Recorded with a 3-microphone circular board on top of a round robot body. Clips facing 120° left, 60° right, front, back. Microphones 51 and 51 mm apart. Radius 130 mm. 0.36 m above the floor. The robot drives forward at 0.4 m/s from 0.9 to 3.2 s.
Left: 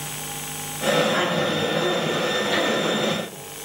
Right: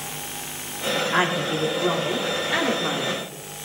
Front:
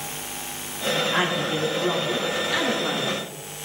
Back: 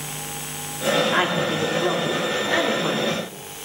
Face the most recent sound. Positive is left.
turn(degrees=-130)